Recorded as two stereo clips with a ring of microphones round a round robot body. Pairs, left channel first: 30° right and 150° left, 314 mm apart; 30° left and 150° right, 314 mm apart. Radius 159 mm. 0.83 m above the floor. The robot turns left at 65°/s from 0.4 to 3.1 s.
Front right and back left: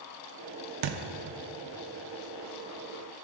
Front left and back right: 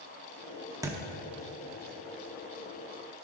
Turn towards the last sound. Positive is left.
turn(degrees=-20)